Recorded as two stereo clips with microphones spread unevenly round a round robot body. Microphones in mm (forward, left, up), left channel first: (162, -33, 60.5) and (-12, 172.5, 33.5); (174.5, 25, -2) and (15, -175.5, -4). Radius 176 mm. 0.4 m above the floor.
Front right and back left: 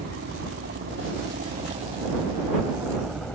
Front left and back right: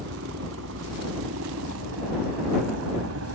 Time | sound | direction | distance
0.0 | a helicopter | straight behind | ?